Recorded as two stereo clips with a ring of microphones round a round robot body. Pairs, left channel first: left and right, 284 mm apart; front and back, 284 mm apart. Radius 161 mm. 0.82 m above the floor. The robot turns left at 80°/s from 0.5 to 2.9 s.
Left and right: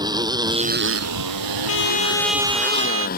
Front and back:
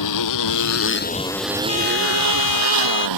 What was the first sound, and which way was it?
A motorcycle, 15° right.